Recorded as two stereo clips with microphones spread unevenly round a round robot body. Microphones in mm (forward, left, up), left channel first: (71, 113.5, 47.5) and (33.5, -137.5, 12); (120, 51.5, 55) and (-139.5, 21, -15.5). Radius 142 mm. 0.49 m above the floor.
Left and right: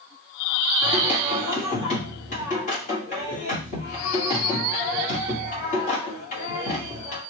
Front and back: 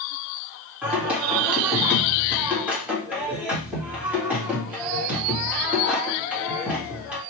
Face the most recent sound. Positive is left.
turn(degrees=130)